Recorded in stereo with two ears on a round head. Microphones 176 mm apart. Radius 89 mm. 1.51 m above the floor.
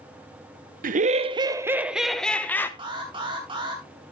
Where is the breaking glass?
No breaking glass in this recording.